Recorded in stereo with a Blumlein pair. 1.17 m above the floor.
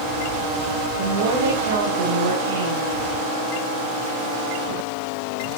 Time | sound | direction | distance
1.0 | a woman speaking | 65° right | 9 m